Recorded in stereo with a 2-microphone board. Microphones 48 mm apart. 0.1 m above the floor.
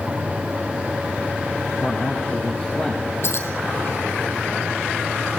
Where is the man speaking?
30° left (ahead or behind), 4.5 m.